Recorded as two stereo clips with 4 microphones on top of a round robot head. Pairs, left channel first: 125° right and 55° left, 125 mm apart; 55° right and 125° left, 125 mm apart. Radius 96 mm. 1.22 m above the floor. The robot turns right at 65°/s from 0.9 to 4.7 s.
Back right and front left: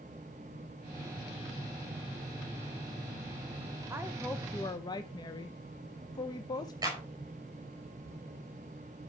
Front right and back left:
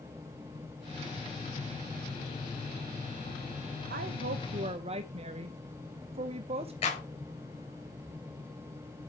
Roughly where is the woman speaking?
Behind left.